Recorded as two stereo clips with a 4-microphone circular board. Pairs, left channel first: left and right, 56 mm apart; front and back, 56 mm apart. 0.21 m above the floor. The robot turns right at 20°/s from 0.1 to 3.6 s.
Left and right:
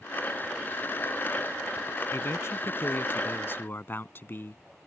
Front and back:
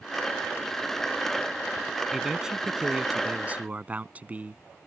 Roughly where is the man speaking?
Left.